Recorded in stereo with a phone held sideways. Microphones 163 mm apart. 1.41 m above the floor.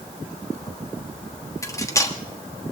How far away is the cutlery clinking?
About 1.3 m.